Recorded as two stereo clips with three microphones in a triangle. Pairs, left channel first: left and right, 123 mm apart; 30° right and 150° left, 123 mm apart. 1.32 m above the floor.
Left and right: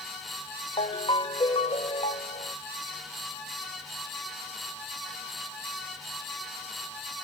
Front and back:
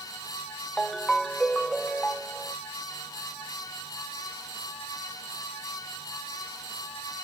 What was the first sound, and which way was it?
A ringtone, 55° left.